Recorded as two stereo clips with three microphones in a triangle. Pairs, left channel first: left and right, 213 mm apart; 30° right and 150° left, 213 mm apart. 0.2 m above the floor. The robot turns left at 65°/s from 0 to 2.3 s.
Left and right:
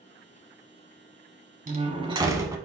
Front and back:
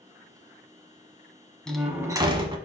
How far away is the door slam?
About 1.1 m.